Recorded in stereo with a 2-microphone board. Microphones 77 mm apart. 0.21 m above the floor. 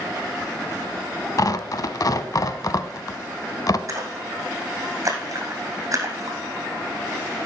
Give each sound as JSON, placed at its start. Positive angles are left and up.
{"t": 1.4, "sound": "tearing paper", "side_deg": 50, "distance_m": 0.6}
{"t": 3.9, "sound": "a splash", "side_deg": -45, "distance_m": 2.5}